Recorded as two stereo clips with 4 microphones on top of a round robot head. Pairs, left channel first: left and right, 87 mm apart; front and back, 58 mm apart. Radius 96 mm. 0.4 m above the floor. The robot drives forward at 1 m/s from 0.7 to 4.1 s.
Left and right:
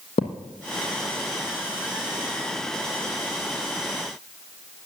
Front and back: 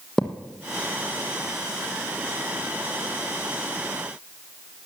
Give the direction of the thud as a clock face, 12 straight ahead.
9 o'clock.